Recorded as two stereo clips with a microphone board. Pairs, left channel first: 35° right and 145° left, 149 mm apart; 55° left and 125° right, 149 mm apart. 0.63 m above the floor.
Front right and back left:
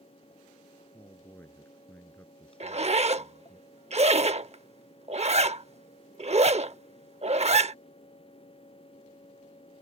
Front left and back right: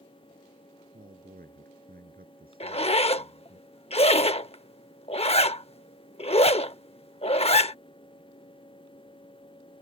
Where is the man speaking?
110° right; by 3.6 s 120° right.